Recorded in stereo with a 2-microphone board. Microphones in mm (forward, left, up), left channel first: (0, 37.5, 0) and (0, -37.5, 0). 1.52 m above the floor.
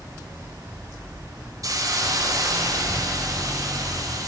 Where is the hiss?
50° right (ahead or behind), 0.8 m.